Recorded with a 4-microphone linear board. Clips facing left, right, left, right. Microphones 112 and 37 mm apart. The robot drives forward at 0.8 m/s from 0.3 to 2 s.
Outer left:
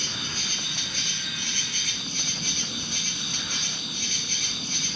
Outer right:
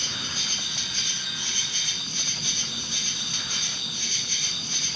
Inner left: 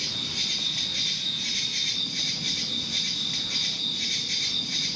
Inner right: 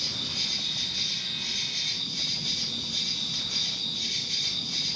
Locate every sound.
0.0 s an insect: 50° left (ahead or behind), 1.8 m; by 5.0 s 60° left (ahead or behind), 1.6 m